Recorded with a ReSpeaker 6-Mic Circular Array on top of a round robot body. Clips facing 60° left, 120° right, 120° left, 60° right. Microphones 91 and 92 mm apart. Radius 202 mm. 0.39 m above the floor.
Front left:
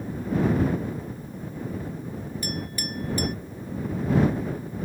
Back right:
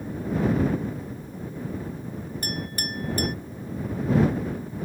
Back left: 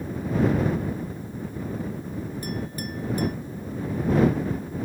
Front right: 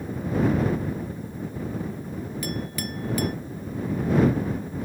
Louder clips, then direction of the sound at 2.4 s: Back right 1 dB, even; 75° right.